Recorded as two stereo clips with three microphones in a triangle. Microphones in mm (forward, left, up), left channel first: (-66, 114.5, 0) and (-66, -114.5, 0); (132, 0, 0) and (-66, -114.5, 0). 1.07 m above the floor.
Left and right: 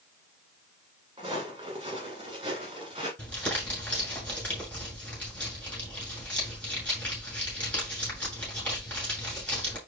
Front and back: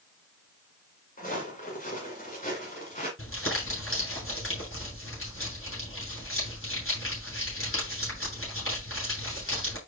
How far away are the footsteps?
About 8.5 m.